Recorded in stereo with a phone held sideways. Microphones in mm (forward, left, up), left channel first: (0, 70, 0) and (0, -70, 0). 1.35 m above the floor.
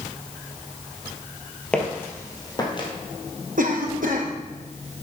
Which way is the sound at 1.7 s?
5° left (ahead or behind).